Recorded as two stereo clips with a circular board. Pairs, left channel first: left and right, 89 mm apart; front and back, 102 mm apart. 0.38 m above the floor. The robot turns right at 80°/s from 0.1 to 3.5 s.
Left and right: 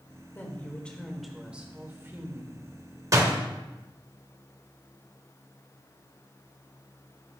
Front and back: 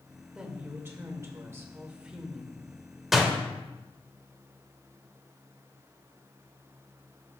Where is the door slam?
95° right, 1.1 m; by 3.4 s 75° right, 1.1 m.